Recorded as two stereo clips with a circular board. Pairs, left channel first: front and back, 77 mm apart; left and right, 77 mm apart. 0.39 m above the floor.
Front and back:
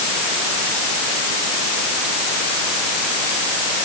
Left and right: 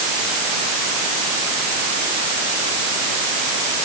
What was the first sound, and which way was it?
Only background noise.